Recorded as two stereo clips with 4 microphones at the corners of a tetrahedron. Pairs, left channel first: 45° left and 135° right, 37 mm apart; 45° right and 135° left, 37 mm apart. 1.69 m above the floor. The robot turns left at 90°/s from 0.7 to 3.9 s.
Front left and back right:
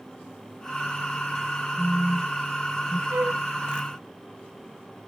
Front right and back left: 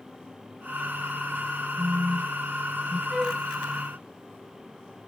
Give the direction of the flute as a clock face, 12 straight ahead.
4 o'clock.